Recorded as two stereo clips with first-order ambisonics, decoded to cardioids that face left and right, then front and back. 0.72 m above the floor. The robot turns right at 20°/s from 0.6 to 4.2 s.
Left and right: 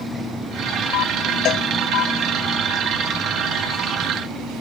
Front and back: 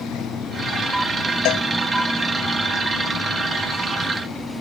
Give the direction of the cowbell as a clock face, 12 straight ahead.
11 o'clock.